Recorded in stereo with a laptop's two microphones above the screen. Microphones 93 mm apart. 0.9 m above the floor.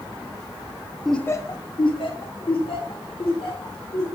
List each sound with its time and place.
1.1 s laughter: 5° right (ahead or behind), 0.5 m; by 4.0 s 75° left (ahead or behind), 4 m